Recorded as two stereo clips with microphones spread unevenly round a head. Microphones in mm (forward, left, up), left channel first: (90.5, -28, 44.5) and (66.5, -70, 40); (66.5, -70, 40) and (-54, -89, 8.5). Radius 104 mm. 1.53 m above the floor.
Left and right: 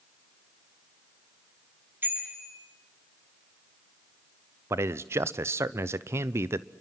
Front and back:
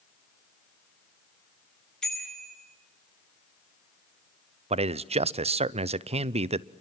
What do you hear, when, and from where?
2.0 s a bicycle bell: 75° right, 10 m
4.7 s a man speaking: 150° right, 0.8 m